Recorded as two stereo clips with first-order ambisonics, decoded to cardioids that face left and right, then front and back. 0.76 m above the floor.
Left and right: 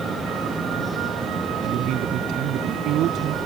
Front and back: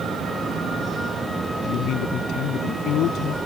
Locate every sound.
1.6 s a man speaking: 45° right